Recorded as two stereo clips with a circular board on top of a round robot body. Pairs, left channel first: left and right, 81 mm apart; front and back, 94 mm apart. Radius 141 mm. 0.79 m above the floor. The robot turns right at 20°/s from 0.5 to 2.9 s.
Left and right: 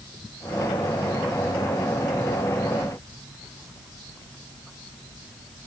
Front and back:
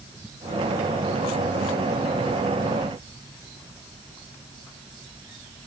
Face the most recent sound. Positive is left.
No sound to turn to.